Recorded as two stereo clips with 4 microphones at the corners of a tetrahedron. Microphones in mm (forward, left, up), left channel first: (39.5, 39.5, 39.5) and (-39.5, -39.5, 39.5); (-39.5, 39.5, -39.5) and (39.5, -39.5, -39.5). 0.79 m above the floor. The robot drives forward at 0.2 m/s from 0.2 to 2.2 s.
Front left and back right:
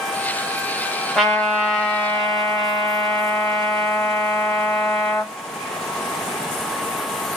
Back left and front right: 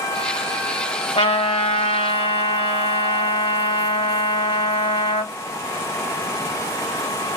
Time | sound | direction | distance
1.1 | a trumpet | 130° left | 1.6 m